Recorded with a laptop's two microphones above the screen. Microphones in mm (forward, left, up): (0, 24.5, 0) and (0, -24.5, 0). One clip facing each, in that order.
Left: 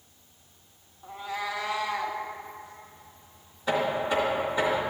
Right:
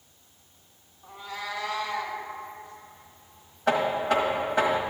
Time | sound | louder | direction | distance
1.0 | a cat meowing | left 3 dB | 25° left (ahead or behind) | 0.8 m
3.7 | knocking | right 2 dB | 65° right (ahead or behind) | 1.3 m